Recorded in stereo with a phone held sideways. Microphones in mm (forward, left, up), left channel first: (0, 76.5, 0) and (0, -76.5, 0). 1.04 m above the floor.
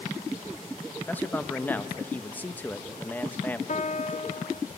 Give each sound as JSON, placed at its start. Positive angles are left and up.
{"t": 1.1, "sound": "a man speaking", "side_deg": 10, "distance_m": 0.9}
{"t": 3.7, "sound": "a piano", "side_deg": 50, "distance_m": 0.6}